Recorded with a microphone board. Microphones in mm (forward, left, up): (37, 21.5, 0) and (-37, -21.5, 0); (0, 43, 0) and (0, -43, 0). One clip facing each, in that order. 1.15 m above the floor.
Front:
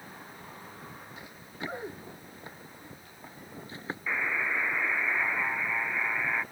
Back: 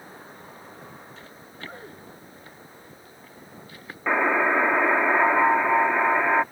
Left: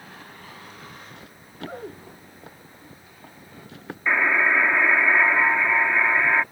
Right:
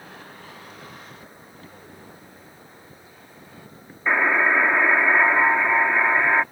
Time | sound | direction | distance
1.2 | running footsteps | 105° left | ?
4.1 | a buzzer | 165° right | ?